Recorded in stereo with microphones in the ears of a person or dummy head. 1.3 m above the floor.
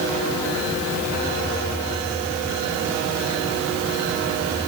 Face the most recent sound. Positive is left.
No sound to turn to.